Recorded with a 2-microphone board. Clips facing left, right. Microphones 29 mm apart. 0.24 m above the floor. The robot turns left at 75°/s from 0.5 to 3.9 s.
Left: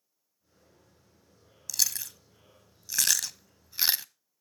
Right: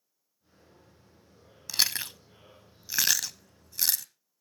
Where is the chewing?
40° right (ahead or behind), 0.5 m; by 4.0 s 30° left (ahead or behind), 0.5 m.